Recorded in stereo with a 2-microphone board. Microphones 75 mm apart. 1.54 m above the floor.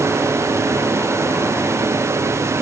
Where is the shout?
I don't hear a shout.